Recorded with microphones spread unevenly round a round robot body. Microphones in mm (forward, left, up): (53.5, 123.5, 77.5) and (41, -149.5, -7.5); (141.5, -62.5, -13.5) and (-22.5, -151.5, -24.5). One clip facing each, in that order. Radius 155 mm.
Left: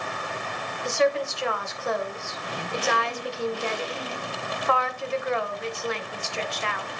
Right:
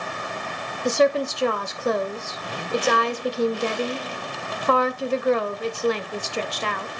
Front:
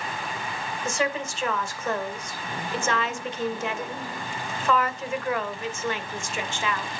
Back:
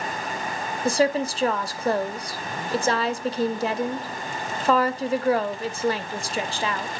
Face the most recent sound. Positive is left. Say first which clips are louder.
# right 4 dB, back 7 dB
turn(degrees=-105)